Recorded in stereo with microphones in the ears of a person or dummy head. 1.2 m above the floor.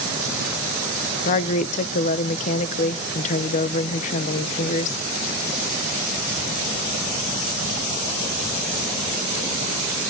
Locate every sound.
1.2 s a woman speaking: 45° left (ahead or behind), 0.6 m